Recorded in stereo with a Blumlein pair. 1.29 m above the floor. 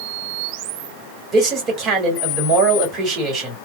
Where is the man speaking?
25° right, 2 m.